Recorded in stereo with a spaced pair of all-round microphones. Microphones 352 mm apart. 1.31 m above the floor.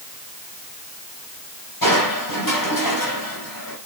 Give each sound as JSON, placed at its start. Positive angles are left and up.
{"t": 1.8, "sound": "crushing", "side_deg": 75, "distance_m": 6.5}